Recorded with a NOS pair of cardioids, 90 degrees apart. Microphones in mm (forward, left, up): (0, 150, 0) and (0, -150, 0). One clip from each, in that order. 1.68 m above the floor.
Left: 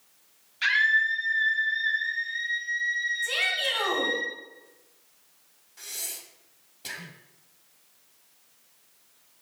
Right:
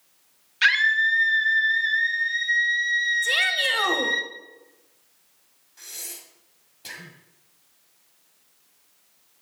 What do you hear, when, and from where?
0.6 s a scream: 55° right, 1.5 m
3.2 s a shout: 45° right, 1.7 m
5.8 s breathing: 5° left, 1.4 m